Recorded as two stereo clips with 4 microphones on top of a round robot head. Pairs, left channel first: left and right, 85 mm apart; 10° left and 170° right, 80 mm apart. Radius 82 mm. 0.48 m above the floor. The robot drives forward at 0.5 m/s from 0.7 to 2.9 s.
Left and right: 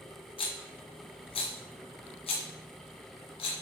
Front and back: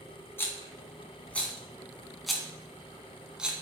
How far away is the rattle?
About 1.8 m.